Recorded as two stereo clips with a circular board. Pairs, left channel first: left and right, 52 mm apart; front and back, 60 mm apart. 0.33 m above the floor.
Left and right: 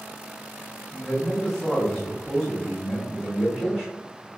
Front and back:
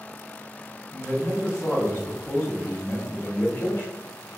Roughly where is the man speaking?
Ahead.